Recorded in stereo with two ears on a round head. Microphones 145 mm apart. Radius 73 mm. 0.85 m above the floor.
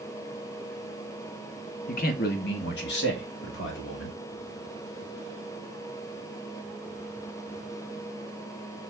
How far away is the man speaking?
About 0.7 m.